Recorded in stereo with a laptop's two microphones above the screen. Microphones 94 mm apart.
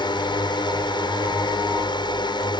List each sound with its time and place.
0.0 s a drone: 55° left (ahead or behind)